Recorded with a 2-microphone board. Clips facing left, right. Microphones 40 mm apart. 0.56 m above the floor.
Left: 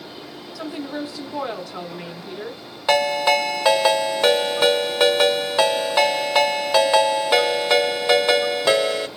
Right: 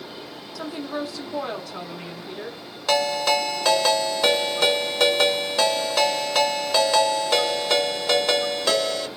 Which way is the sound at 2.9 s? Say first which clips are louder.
Left 3 dB; 20° left (ahead or behind).